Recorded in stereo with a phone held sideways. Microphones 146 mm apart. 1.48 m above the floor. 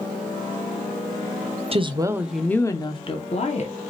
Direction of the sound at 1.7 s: 40° right (ahead or behind).